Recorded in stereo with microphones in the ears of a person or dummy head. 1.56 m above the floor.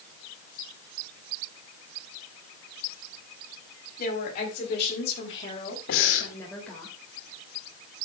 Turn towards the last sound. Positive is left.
turn(degrees=65)  # may be behind; listen again after turning